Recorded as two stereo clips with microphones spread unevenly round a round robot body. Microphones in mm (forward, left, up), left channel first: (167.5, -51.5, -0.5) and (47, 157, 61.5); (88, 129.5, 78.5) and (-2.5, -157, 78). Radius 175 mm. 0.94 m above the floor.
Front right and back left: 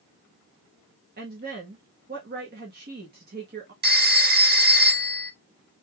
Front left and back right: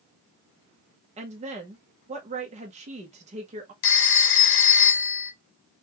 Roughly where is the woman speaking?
Behind.